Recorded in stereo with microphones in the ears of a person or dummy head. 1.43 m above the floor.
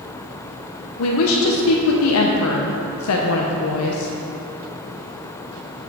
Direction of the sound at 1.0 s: 80° left.